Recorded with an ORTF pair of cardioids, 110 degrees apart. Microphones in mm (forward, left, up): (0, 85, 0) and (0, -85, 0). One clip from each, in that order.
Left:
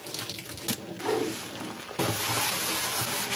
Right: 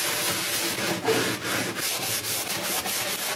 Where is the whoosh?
60° right, 7 m.